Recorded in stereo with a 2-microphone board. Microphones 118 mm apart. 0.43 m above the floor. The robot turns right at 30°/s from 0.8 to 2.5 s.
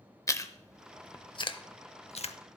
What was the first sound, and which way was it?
Chewing, 25° left (ahead or behind).